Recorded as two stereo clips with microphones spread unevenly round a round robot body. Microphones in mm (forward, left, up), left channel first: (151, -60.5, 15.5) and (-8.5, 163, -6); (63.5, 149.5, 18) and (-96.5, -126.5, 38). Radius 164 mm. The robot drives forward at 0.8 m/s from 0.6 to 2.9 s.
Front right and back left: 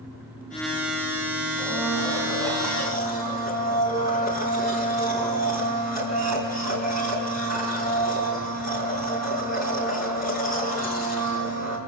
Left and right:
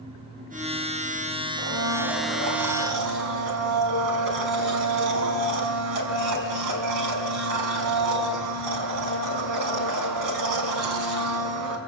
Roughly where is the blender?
Behind right.